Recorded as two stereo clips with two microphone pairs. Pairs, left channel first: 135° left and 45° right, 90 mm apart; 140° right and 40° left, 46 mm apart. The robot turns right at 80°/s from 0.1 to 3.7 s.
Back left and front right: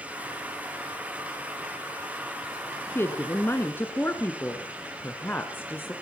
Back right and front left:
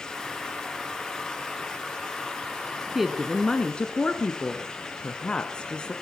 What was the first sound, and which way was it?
A woman speaking, 110° left.